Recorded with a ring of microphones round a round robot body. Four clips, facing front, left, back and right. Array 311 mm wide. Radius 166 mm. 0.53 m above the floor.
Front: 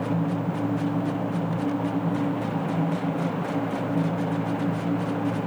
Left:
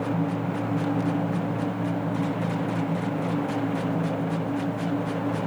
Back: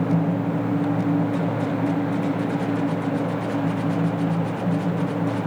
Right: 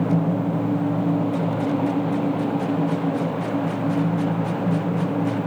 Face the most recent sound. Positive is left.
No sound to turn to.